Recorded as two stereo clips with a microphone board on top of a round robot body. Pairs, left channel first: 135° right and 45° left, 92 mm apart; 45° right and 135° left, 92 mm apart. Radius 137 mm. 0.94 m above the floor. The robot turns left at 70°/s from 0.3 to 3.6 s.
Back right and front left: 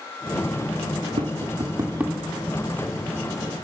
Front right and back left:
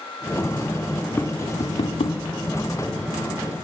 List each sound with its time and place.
1.2 s tapping: 30° left, 2.5 m; by 2.2 s 40° right, 2.5 m